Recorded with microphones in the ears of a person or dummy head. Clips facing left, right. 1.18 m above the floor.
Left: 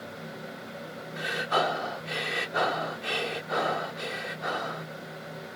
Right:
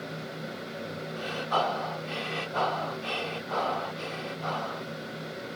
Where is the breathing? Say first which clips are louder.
Left 1 dB; 25° left (ahead or behind).